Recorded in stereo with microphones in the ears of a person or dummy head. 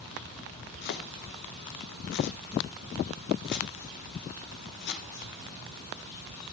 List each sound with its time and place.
0.8 s chopping: 55° left (ahead or behind), 0.7 m